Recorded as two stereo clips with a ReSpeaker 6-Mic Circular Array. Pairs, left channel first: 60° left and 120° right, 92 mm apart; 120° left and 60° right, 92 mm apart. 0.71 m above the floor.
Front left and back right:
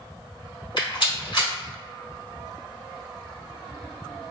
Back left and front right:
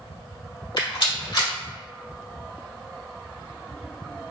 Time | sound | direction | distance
0.8 | a rattle | 95° left | 1.7 m